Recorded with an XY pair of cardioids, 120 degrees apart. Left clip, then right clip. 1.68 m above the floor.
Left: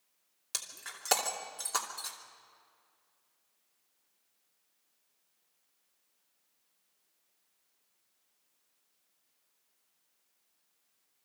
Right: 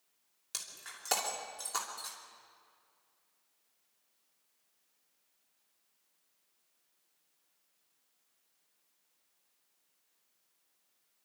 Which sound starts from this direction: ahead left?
Breaking glass, at 0.5 s.